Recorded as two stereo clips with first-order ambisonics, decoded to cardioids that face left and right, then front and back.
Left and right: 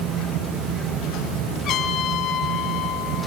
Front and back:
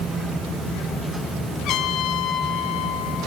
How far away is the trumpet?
About 1.8 m.